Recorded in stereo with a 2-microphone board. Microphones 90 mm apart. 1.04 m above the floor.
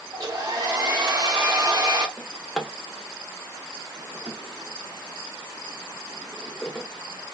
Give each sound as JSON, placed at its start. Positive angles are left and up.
{"t": 0.1, "sound": "a hair dryer", "side_deg": -45, "distance_m": 0.7}
{"t": 2.2, "sound": "a drawer", "side_deg": 5, "distance_m": 0.7}